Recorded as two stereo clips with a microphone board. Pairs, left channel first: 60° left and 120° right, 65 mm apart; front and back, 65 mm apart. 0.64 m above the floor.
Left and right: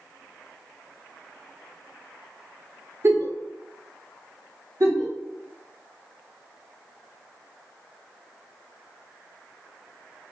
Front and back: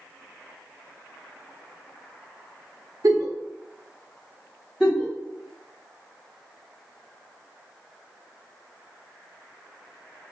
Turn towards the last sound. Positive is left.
turn(degrees=-90)